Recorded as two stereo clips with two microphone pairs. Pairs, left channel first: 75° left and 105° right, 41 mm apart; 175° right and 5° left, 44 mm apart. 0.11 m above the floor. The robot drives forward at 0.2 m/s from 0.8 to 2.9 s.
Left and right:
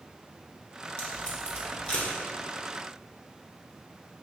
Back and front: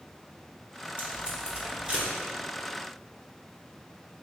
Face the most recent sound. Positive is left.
turn(degrees=75)